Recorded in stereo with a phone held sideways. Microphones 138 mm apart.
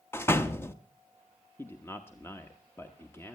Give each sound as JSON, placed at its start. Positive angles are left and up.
{"t": 0.1, "sound": "a door slam", "side_deg": 15, "distance_m": 1.0}
{"t": 1.6, "sound": "a man speaking", "side_deg": 15, "distance_m": 1.1}